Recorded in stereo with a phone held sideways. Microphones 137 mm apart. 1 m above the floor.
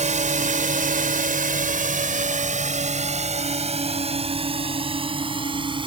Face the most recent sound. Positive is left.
turn(degrees=-40)  # may be behind; listen again after turning